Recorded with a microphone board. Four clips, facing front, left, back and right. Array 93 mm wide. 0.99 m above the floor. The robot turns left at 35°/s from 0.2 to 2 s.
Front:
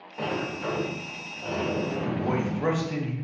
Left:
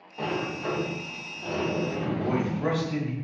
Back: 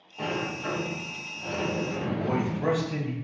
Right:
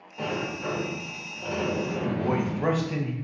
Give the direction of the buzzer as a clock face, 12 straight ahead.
I don't hear a buzzer.